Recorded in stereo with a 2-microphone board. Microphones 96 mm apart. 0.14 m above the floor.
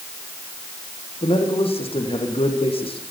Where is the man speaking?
80° left, 6.5 m.